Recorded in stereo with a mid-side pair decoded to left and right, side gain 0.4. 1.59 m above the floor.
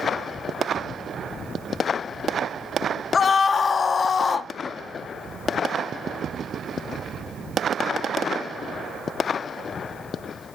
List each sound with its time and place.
3.1 s a scream: 50° left, 1.2 m